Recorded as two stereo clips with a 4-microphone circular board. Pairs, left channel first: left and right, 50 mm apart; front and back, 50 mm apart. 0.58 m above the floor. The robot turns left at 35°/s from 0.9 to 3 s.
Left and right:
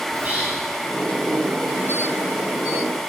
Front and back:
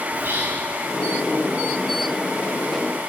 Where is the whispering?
140° right, 4 m.